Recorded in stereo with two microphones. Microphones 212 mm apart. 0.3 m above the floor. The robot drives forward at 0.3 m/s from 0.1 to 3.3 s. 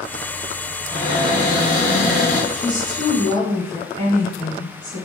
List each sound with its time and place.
0.9 s a cupboard door: 40° left (ahead or behind), 1.4 m; by 2.4 s 30° left (ahead or behind), 1.7 m
2.5 s a woman speaking: 20° left (ahead or behind), 1.0 m